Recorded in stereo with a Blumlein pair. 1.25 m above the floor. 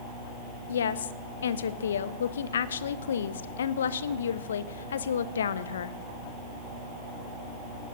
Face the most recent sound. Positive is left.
turn(degrees=65)